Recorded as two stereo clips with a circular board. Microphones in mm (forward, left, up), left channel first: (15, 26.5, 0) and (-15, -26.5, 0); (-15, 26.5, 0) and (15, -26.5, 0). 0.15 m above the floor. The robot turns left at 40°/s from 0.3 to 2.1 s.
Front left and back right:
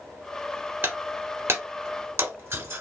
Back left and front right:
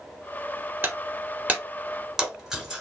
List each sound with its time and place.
0.8 s breaking glass: 85° right, 1.0 m; by 2.8 s 140° right, 1.0 m